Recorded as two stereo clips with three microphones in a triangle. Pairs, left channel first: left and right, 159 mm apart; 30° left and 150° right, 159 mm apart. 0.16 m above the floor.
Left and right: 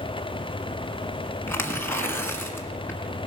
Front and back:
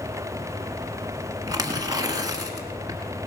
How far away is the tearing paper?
About 1.4 m.